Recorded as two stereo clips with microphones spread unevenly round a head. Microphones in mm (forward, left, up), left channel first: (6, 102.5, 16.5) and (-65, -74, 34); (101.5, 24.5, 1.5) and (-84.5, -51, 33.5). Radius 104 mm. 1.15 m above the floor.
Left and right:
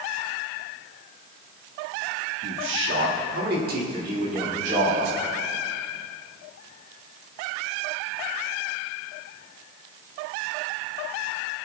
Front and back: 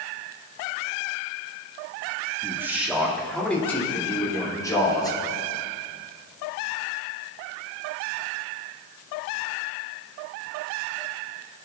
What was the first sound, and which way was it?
A man speaking, 80° right.